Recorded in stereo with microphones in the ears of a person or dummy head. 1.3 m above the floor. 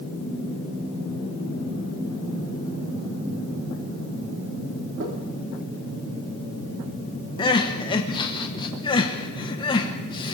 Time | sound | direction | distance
5.0 | knocking | 60° right (ahead or behind) | 3 m
7.4 | crying | 30° left (ahead or behind) | 1.1 m